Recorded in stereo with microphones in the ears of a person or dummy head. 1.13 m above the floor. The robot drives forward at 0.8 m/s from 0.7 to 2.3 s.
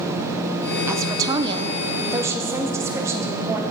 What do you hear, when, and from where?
0.9 s a woman speaking: 15° right (ahead or behind), 0.8 m; by 3.6 s 10° right (ahead or behind), 0.9 m